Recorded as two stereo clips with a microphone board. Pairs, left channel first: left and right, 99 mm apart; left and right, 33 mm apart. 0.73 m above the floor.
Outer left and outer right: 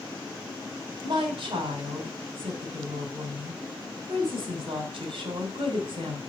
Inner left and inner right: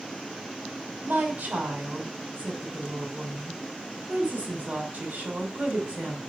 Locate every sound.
1.0 s a woman speaking: 75° right (ahead or behind), 2.5 m